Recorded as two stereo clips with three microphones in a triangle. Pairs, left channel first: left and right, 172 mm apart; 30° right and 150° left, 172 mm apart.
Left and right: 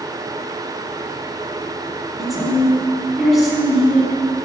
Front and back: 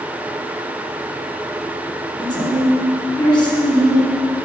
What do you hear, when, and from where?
2.2 s a woman speaking: straight ahead, 1.8 m